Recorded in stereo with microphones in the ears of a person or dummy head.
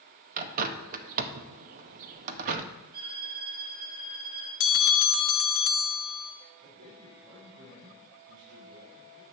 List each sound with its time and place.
0.4 s a bird: 50° right (ahead or behind), 0.6 m
2.9 s a violin: 55° right (ahead or behind), 4 m
4.6 s a bell: 65° left (ahead or behind), 0.7 m
6.6 s a man speaking: 75° right (ahead or behind), 3 m